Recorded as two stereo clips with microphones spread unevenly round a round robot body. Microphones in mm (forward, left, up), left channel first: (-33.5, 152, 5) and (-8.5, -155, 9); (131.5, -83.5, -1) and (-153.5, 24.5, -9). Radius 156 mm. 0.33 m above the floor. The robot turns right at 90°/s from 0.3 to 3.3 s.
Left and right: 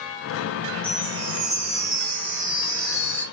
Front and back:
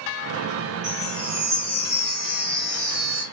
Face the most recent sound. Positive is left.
turn(degrees=35)